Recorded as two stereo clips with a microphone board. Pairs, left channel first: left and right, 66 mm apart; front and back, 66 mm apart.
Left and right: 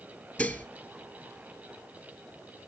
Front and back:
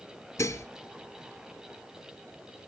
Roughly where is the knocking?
No knocking in this recording.